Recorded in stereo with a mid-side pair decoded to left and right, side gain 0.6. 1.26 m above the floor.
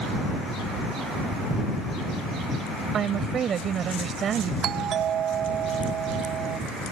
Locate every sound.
2.9 s a woman speaking: 45° right
4.6 s a doorbell: 50° right